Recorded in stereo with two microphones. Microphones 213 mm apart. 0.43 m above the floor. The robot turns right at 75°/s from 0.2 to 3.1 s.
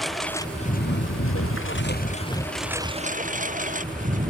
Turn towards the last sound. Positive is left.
turn(degrees=-140)